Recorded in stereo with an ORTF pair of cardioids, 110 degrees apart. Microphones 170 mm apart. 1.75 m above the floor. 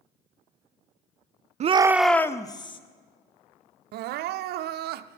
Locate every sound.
1.6 s a shout: 40° right, 0.5 m; by 2.8 s 30° left, 1.2 m
3.9 s crying: 70° right, 0.5 m